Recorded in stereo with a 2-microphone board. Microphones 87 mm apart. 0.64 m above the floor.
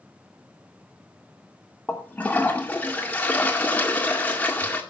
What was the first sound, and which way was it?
A toilet flushing, 20° left (ahead or behind).